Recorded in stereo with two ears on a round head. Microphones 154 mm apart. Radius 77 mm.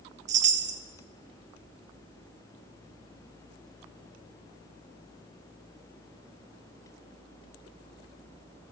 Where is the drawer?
I don't hear a drawer.